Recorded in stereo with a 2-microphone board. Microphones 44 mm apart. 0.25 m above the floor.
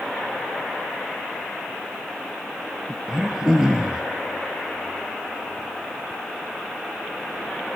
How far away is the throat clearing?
About 2 m.